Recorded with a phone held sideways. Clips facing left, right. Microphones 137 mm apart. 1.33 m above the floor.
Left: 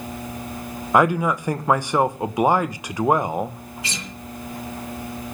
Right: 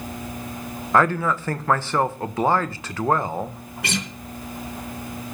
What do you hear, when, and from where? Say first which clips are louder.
0.9 s a man speaking: left 2 dB; 15° left (ahead or behind), 1.3 m
3.8 s a guitar: right 8 dB; 65° right (ahead or behind), 3 m